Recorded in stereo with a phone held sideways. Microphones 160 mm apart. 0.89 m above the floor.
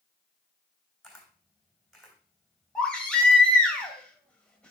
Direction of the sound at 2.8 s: 5° left (ahead or behind).